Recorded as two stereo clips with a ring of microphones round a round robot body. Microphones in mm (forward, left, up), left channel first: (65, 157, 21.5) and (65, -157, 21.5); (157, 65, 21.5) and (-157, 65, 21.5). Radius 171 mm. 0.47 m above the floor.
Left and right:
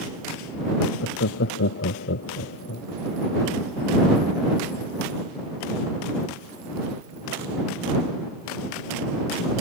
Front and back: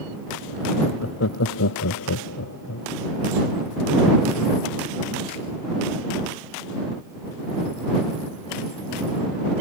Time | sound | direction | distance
0.8 | laughter | 45° left | ?